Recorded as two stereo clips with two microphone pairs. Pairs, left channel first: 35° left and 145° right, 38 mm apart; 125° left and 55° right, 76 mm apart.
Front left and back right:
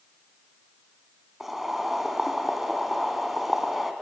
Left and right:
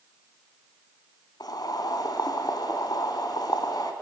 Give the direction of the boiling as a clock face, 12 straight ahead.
8 o'clock.